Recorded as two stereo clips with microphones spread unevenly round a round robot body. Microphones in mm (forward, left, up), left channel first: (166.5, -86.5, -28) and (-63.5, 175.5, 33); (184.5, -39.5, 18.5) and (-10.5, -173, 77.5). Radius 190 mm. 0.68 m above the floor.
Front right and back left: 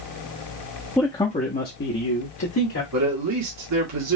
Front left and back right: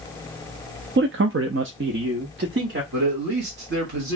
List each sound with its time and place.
1.0 s a man speaking: 115° right, 0.6 m; by 2.8 s 100° right, 1.7 m
2.9 s a man speaking: 170° left, 1.5 m